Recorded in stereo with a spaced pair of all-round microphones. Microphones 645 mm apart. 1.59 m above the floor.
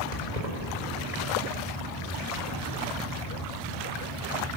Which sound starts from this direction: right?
Keys jangling, at 0.1 s.